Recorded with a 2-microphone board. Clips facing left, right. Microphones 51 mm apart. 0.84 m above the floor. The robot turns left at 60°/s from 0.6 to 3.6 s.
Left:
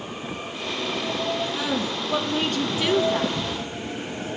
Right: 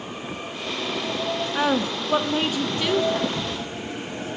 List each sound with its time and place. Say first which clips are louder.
1.6 s a woman speaking: right 4 dB; 115° right, 0.9 m; by 3.4 s 135° left, 0.9 m